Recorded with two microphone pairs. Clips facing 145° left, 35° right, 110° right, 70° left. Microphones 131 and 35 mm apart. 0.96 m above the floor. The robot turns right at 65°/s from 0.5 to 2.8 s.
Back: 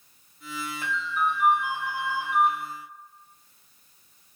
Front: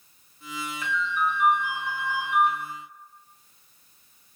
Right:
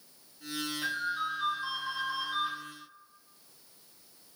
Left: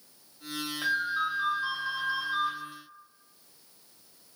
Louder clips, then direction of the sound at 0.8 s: Front 1 dB, left 6 dB; 85° left.